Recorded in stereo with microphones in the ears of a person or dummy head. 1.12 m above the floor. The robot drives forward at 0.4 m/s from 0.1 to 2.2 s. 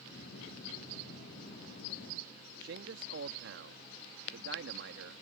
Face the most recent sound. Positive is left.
turn(degrees=-55)  # may be behind; listen again after turning